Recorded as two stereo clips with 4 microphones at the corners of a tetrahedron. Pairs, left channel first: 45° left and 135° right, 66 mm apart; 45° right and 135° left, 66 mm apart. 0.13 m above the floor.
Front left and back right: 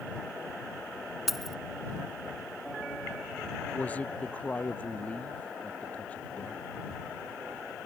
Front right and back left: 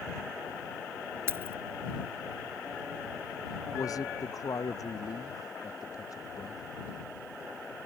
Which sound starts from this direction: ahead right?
A man speaking, at 3.7 s.